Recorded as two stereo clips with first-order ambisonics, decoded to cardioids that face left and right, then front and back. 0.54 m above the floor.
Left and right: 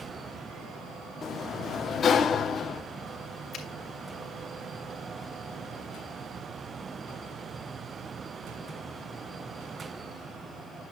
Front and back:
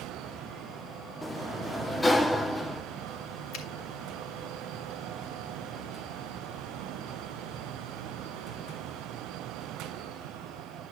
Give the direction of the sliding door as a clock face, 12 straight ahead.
10 o'clock.